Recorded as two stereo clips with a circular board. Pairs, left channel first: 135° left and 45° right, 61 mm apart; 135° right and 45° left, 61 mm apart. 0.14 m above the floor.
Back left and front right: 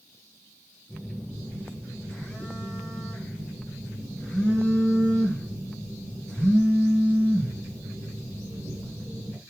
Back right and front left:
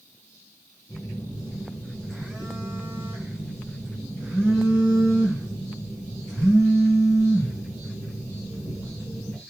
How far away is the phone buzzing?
About 1.6 m.